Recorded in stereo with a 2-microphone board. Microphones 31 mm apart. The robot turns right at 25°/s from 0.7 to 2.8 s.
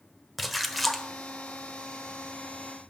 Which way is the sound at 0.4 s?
Centre (ahead or behind).